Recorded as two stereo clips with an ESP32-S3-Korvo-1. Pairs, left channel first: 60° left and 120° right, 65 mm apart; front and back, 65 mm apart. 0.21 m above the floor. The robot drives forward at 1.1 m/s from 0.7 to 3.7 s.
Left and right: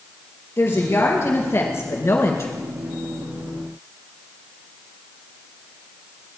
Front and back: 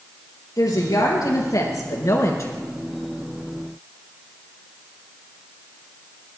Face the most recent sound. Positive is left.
turn(degrees=55)